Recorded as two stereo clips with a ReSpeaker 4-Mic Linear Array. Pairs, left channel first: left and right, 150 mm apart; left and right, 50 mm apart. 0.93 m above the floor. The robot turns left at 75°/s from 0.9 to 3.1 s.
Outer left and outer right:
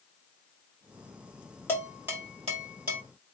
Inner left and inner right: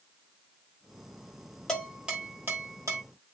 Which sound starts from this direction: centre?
Dishes clattering, at 1.7 s.